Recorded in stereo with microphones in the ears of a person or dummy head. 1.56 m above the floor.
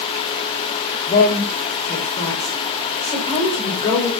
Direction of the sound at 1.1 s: 35° left (ahead or behind).